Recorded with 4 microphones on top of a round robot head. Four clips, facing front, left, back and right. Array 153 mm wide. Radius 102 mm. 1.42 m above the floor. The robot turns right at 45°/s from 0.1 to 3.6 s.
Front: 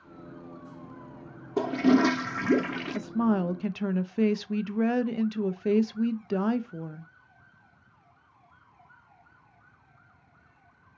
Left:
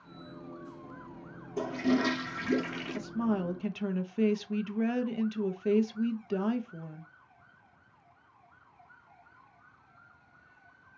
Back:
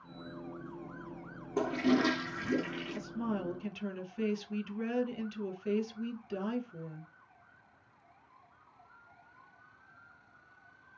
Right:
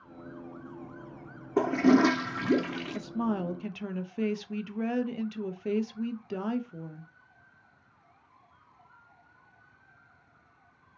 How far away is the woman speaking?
About 0.6 m.